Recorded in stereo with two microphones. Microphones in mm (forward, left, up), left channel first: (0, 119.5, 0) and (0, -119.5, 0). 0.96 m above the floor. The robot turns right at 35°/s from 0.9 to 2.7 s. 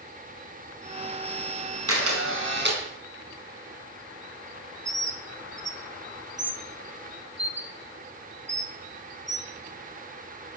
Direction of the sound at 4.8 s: 50° right (ahead or behind).